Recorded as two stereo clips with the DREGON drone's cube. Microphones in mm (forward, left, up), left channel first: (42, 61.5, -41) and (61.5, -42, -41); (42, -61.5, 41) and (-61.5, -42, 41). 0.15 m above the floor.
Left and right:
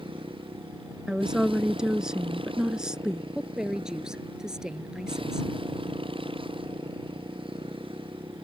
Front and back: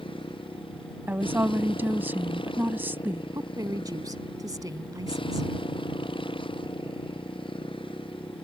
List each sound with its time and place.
0.0 s a motorcycle: 45° right
1.1 s a woman speaking: 150° right
3.3 s a woman speaking: 160° right